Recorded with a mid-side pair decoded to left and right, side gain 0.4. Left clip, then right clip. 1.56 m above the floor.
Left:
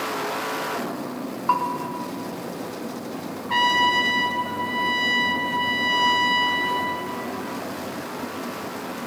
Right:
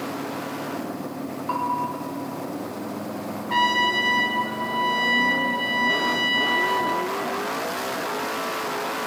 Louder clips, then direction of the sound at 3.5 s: Left 1 dB; 15° left.